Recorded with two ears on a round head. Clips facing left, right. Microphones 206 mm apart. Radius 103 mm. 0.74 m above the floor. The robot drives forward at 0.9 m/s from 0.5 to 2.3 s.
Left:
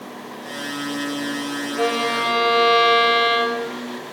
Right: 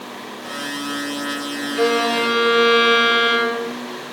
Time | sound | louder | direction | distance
1.8 | a violin | right 5 dB | 25° right (ahead or behind) | 2.5 m